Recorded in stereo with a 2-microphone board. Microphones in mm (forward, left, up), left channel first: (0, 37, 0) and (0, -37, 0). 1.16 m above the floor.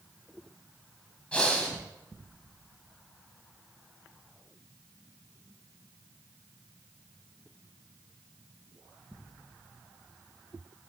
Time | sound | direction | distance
1.3 | breathing | 15° left (ahead or behind) | 1.2 m